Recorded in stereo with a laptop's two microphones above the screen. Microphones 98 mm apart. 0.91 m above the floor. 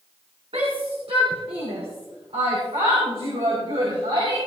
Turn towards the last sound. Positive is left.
turn(degrees=-85)